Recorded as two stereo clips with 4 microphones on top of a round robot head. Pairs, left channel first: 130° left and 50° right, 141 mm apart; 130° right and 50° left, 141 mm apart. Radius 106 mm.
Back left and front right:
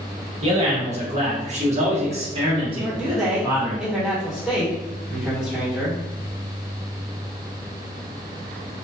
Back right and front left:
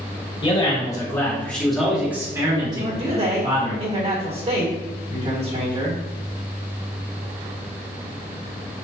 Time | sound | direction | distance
0.4 | a man speaking | 85° right | 1.6 m
2.8 | a man speaking | 35° left | 1.8 m